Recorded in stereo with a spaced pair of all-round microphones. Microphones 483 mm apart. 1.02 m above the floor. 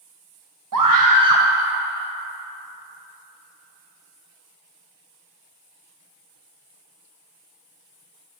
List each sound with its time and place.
0.7 s a scream: 45° right (ahead or behind), 0.6 m